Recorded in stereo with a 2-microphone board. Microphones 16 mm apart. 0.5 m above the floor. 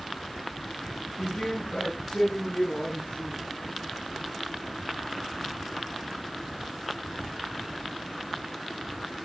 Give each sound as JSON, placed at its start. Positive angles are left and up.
{"t": 1.2, "sound": "a man speaking", "side_deg": 75, "distance_m": 7.5}